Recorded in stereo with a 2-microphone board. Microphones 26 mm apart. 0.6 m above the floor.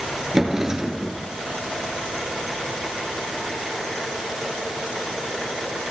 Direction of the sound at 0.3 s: 20° right (ahead or behind).